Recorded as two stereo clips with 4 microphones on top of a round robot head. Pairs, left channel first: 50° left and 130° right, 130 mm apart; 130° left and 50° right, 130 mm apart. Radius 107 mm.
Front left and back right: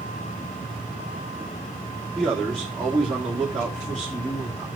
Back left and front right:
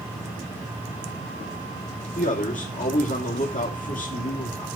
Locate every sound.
2.1 s a man speaking: 135° left, 3 m